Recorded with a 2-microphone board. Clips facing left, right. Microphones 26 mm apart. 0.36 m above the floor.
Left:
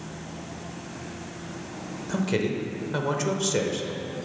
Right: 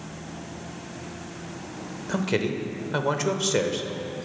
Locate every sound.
2.1 s a man speaking: 15° right (ahead or behind), 0.8 m